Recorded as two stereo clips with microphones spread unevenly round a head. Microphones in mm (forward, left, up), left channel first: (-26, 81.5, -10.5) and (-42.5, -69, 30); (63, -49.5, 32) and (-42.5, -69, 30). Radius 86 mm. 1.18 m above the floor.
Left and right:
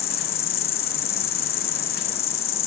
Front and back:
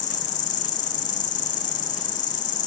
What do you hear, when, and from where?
0.0 s an insect: 25° left, 1.1 m